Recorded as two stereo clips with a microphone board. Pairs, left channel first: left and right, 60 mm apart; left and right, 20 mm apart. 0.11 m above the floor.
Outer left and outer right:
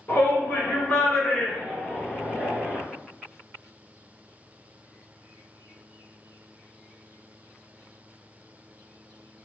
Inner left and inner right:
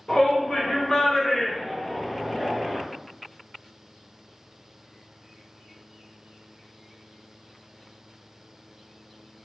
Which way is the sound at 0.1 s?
35° left (ahead or behind).